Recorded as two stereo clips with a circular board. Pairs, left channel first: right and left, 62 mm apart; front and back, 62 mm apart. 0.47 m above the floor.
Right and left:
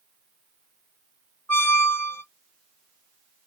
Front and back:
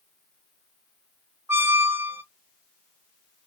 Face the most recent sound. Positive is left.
turn(degrees=-135)